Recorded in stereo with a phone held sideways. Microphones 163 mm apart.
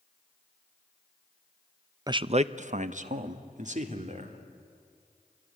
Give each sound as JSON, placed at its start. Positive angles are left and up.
{"t": 2.1, "sound": "a man speaking", "side_deg": -25, "distance_m": 0.5}